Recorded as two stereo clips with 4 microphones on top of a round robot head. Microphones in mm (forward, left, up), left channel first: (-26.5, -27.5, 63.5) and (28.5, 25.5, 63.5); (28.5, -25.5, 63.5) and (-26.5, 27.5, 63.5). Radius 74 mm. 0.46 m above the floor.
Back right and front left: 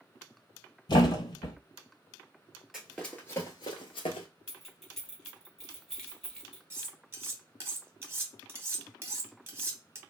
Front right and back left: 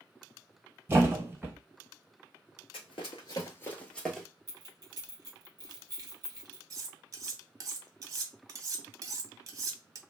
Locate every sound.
0.9 s a thud: 160° right, 1.1 m
2.7 s running footsteps: 40° right, 0.6 m; by 4.3 s 135° right, 0.7 m
4.5 s keys jangling: 140° left, 1.2 m
6.7 s cutlery clinking: 105° left, 0.9 m